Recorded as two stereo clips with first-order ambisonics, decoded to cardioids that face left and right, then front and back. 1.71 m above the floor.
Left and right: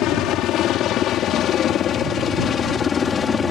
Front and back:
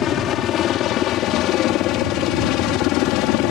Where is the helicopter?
50° left; by 3.5 s 20° left.